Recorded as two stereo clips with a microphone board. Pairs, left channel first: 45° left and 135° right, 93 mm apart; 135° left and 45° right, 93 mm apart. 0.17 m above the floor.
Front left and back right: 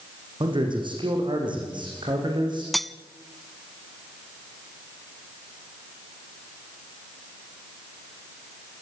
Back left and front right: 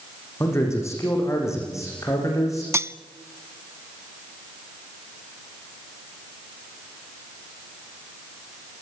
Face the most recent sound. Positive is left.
turn(degrees=-40)